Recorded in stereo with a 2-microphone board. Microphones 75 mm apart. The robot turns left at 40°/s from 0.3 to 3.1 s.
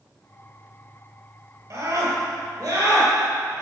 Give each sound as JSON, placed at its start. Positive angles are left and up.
{"t": 1.7, "sound": "a scream", "azimuth_deg": -90, "distance_m": 2.5}